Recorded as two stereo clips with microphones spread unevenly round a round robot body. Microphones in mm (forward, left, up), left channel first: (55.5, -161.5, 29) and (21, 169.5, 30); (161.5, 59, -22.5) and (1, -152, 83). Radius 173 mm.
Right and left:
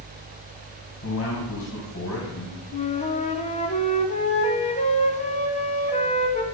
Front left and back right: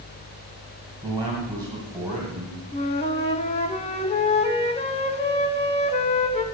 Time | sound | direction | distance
1.0 | a man speaking | 45° right | 2.5 m
2.7 | a flute | 15° right | 1.1 m